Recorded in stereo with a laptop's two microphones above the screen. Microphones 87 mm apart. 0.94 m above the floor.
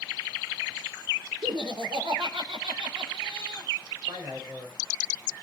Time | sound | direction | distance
1.4 | laughter | 60° right (ahead or behind) | 3.5 m
4.1 | a man speaking | 35° right (ahead or behind) | 5 m